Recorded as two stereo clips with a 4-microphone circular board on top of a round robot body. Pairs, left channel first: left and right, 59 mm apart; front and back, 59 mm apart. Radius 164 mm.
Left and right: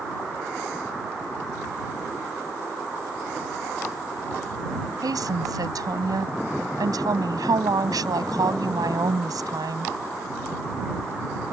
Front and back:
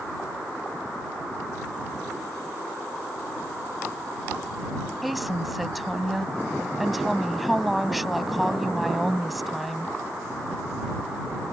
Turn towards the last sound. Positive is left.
turn(degrees=-95)